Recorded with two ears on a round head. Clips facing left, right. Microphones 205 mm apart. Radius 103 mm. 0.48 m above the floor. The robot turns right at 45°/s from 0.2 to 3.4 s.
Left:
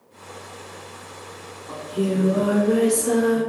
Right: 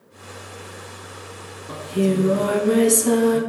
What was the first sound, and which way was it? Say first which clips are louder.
Singing: right 3 dB; 135° right.